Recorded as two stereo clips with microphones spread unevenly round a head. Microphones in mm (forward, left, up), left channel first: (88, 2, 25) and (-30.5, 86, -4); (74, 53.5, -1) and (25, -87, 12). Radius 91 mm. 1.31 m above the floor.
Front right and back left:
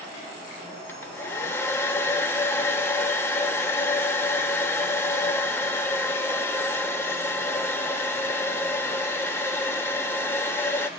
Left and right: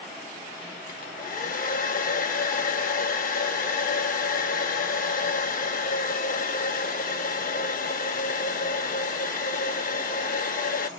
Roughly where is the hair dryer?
Ahead left.